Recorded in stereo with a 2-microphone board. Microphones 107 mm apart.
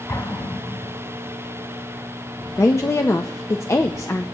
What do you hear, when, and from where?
0.1 s an explosion: 35° left (ahead or behind), 3 m
2.6 s a woman speaking: 25° left (ahead or behind), 0.5 m